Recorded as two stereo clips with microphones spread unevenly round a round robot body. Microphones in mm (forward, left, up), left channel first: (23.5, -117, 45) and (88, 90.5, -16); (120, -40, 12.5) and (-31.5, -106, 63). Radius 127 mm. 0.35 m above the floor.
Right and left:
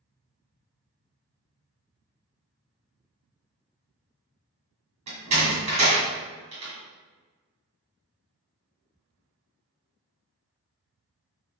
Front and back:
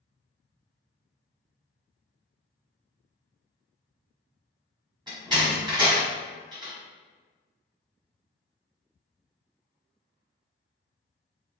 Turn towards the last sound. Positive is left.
turn(degrees=125)